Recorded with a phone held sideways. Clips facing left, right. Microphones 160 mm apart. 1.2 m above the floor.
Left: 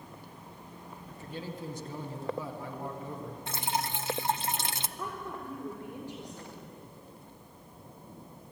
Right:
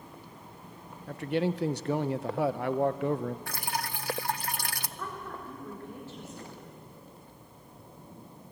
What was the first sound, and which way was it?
A man speaking, 75° right (ahead or behind).